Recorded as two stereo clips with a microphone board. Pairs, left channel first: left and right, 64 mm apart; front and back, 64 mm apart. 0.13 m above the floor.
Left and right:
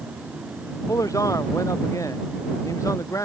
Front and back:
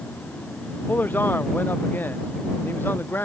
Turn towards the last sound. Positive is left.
turn(degrees=55)